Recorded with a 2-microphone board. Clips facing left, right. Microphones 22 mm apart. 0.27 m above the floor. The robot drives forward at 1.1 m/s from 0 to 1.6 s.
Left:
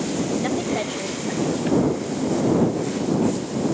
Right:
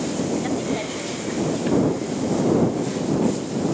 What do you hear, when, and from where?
0.4 s a woman speaking: 20° left (ahead or behind), 1.1 m; by 2.0 s 10° left (ahead or behind), 1.9 m